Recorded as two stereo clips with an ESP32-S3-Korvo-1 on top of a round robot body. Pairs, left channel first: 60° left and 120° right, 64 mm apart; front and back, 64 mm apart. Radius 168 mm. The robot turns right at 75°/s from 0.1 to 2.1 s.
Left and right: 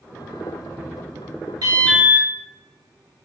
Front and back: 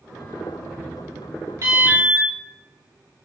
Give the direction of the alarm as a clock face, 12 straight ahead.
5 o'clock.